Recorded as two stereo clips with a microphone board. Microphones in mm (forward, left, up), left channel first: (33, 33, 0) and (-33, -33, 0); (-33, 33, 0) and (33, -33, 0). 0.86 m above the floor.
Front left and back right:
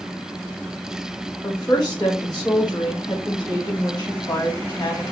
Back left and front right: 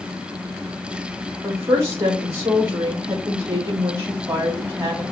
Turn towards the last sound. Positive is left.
turn(degrees=0)